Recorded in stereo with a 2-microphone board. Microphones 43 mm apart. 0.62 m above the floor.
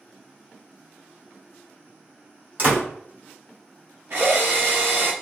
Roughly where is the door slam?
Right.